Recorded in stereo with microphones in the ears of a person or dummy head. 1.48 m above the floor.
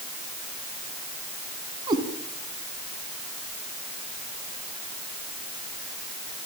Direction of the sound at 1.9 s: 25° right (ahead or behind).